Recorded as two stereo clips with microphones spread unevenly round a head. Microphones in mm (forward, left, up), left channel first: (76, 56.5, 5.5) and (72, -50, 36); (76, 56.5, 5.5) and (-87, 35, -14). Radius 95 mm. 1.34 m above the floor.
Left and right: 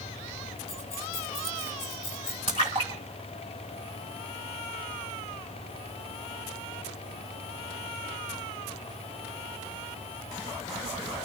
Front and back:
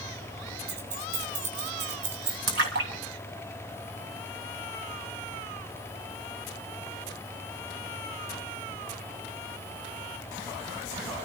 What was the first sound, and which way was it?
Keys jangling, 145° left.